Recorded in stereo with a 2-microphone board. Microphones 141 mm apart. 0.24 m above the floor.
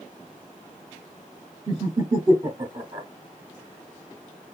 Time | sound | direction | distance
1.7 | laughter | 25° right (ahead or behind) | 1.2 m